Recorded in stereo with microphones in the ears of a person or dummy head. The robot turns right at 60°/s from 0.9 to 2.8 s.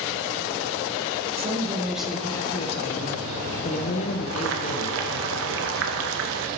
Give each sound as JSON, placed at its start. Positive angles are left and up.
{"t": 1.4, "sound": "a woman speaking", "azimuth_deg": -35, "distance_m": 0.9}
{"t": 4.3, "sound": "boiling", "side_deg": -65, "distance_m": 1.0}